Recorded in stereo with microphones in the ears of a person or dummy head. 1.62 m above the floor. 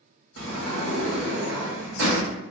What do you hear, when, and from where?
0.4 s a sliding door: 80° right, 1.6 m